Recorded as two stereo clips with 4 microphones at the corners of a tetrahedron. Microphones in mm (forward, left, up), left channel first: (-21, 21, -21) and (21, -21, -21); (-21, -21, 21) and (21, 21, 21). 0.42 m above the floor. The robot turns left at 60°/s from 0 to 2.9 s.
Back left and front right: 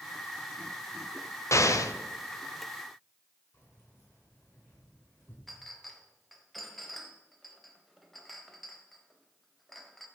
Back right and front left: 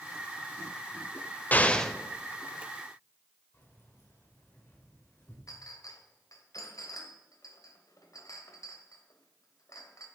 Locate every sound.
1.5 s an explosion: 165° left, 0.5 m; by 1.9 s 140° left, 0.5 m
3.5 s keys jangling: 175° right, 3.5 m
5.5 s a clink: 135° right, 0.9 m